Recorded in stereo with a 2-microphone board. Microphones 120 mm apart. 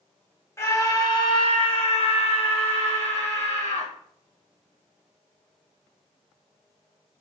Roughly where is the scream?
Left.